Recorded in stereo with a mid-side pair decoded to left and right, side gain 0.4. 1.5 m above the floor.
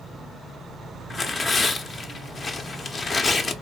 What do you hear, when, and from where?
1.1 s tearing paper: 45° left, 0.6 m